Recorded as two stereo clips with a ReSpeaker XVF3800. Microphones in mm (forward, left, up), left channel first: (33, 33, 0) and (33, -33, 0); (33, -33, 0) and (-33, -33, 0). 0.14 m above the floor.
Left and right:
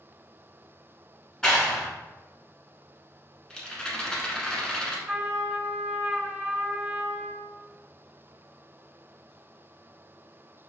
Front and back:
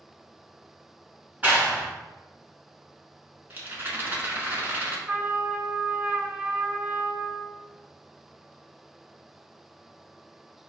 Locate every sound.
1.4 s a clap: 160° left, 1.5 m
3.5 s a rattle: 160° left, 1.1 m
5.1 s a trumpet: 155° right, 0.6 m